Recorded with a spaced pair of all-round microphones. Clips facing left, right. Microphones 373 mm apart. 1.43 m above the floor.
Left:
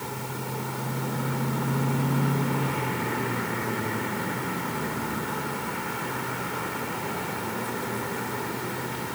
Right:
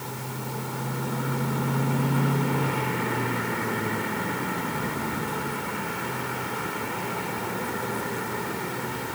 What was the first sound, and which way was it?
Only background noise.